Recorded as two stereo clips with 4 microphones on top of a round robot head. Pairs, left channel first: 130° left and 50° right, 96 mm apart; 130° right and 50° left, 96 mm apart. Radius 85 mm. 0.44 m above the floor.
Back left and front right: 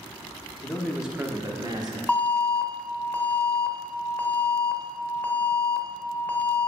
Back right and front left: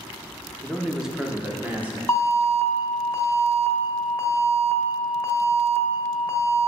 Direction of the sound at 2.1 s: 175° right.